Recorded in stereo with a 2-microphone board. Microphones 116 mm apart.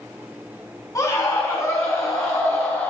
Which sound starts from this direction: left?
A scream, at 0.9 s.